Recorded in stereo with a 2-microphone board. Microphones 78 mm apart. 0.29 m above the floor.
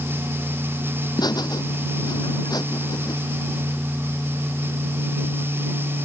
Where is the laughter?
65° left (ahead or behind); by 3.1 s 60° left (ahead or behind).